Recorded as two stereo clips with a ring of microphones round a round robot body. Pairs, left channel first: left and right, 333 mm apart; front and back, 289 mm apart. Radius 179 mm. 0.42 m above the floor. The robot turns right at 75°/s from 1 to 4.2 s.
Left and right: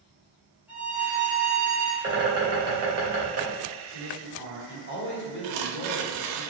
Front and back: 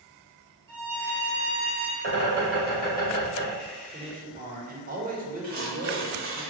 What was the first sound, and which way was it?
A violin, 175° right.